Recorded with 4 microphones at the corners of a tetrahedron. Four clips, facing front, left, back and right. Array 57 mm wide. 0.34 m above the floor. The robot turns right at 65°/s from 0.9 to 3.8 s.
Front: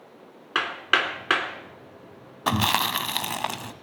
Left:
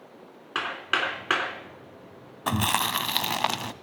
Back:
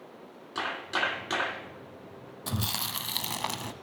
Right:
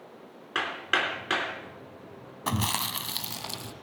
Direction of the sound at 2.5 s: 10° left.